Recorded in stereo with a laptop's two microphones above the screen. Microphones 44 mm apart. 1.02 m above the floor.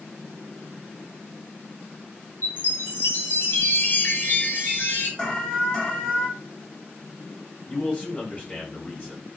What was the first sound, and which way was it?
A chime, 45° left (ahead or behind).